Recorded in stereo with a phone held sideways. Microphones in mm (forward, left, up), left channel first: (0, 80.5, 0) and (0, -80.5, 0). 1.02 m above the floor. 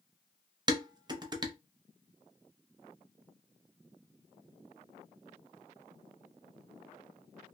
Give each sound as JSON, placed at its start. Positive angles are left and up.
{"t": 0.7, "sound": "dishes clattering", "side_deg": -25, "distance_m": 0.5}